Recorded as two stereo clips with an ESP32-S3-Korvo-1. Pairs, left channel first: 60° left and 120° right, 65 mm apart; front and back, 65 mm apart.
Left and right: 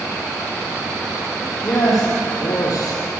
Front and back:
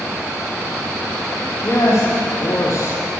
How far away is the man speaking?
About 6 m.